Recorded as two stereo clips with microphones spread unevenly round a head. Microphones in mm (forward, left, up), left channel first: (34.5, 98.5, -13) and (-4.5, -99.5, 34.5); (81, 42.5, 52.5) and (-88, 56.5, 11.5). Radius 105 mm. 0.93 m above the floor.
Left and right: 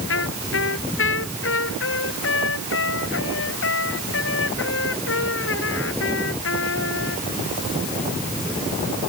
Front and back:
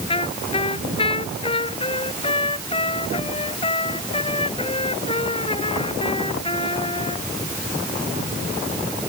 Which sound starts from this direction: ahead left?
A trumpet, at 0.1 s.